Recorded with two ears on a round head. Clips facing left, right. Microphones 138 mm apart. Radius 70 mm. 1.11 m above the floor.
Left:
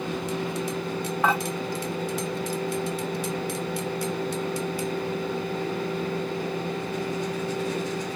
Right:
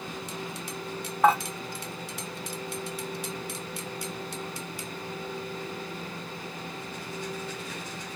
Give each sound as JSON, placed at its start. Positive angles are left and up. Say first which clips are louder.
{"t": 1.2, "sound": "dishes clattering", "louder": "right 3 dB", "side_deg": 0, "distance_m": 1.8}